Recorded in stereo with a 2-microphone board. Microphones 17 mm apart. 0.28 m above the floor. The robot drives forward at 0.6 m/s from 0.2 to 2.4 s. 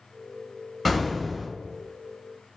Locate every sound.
0.8 s an explosion: 10° left (ahead or behind), 0.5 m; by 1.5 s 5° left (ahead or behind), 0.8 m